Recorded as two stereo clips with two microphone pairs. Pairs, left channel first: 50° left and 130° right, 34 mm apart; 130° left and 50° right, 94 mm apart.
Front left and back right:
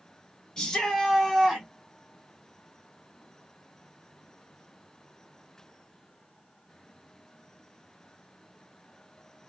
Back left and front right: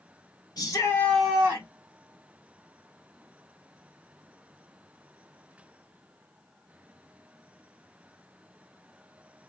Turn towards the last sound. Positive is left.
turn(degrees=-60)